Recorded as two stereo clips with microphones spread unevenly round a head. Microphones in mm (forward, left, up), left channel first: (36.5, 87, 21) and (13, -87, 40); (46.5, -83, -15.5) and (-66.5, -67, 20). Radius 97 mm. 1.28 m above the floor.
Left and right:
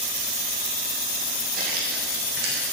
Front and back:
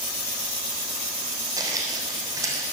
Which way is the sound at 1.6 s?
140° right.